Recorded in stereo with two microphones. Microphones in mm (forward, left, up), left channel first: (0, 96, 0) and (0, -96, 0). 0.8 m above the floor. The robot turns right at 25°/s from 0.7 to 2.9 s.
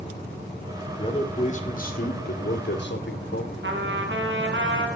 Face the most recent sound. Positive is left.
turn(degrees=-85)